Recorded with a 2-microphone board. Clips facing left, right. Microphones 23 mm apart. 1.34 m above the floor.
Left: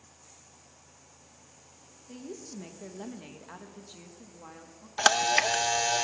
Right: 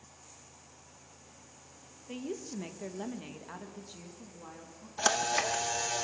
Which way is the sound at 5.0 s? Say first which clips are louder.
Left 6 dB; 40° left (ahead or behind).